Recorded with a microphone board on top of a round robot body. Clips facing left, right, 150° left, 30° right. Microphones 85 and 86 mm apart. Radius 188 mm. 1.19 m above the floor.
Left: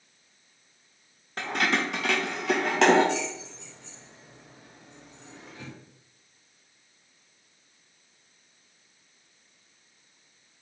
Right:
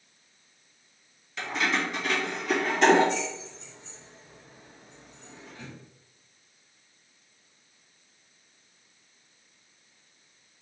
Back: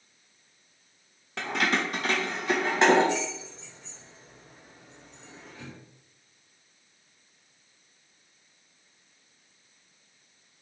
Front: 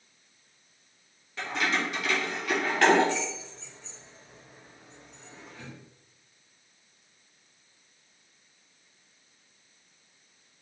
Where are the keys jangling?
135° left, 0.5 m; by 5.7 s 60° left, 2.5 m.